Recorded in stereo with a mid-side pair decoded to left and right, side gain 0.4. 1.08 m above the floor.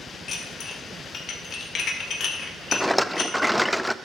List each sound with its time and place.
0.3 s dishes clattering: 60° left, 2 m
2.7 s a rattle: straight ahead, 0.6 m